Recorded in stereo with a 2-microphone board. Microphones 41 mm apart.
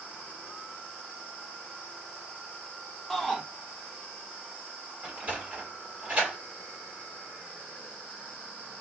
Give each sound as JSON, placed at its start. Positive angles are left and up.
{"t": 3.1, "sound": "a shout", "side_deg": 10, "distance_m": 0.8}
{"t": 5.0, "sound": "a sliding door", "side_deg": -30, "distance_m": 1.7}